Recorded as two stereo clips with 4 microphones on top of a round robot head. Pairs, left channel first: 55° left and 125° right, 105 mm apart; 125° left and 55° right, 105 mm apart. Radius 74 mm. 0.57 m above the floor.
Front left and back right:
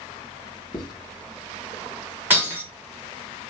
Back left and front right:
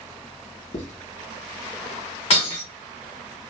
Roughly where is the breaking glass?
Behind.